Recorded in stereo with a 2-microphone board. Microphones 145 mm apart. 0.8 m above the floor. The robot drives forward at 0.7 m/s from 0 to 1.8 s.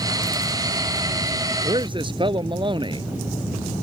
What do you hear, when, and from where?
1.6 s a man speaking: 35° right (ahead or behind)